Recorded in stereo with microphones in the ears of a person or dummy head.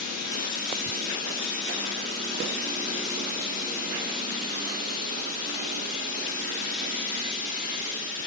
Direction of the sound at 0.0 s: 50° left (ahead or behind).